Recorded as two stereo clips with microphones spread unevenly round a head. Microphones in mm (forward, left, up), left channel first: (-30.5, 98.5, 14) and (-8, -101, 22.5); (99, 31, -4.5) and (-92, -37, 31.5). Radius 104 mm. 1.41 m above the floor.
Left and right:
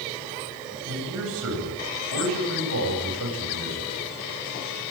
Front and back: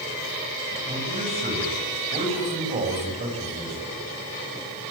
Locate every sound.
0.8 s a man speaking: 100° right, 10 m